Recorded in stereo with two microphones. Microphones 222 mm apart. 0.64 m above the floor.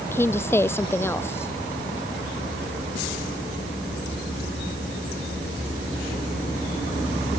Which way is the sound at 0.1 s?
10° left (ahead or behind).